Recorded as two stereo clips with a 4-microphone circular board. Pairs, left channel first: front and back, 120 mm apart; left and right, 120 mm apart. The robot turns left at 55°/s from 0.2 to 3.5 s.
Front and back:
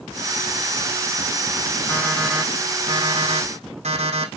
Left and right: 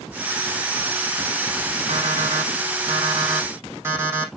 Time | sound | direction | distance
1.9 | an alarm clock | 70° right | 4 m